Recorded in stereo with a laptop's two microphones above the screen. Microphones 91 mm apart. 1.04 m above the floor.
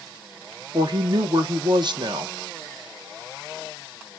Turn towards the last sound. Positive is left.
turn(degrees=-55)  # may be behind; listen again after turning